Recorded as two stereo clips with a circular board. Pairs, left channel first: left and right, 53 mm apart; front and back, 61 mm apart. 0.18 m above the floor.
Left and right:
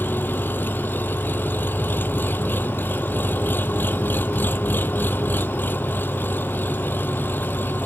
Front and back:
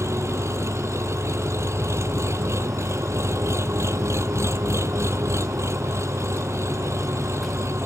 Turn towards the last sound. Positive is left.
turn(degrees=140)